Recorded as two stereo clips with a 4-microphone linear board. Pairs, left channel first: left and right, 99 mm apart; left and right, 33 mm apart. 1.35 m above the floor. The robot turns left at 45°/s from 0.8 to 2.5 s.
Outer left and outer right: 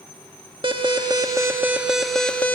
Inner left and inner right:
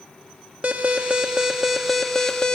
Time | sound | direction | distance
0.6 | an alarm | 120° right | 1.7 m